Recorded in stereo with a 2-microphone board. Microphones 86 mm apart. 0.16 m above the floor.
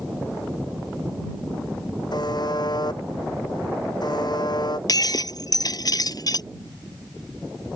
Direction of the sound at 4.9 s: 50° left (ahead or behind).